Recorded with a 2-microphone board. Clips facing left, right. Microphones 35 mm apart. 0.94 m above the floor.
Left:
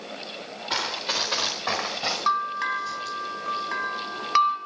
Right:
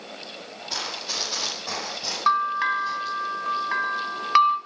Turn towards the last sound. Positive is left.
turn(degrees=-15)  # may be behind; listen again after turning